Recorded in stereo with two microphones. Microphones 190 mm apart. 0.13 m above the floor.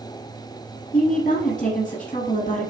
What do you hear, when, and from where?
0.9 s a woman speaking: 40° left (ahead or behind), 1.7 m